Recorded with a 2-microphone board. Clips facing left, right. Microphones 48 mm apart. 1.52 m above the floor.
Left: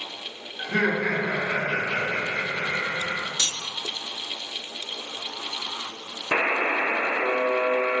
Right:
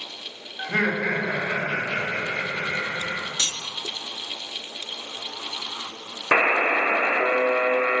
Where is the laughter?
15° right (ahead or behind), 2.0 m; by 3.3 s 40° left (ahead or behind), 2.5 m.